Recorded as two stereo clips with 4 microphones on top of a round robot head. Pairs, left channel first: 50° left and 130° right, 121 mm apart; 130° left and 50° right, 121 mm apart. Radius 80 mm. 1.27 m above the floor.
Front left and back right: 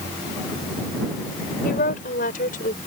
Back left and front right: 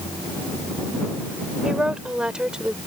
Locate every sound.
1.6 s a woman speaking: 30° left; by 2.8 s 35° left